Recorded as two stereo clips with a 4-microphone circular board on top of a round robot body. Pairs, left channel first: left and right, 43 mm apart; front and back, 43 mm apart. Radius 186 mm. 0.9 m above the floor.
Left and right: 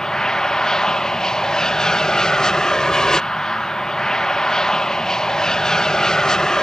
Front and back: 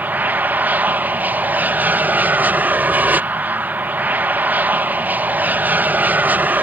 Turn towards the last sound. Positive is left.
turn(degrees=165)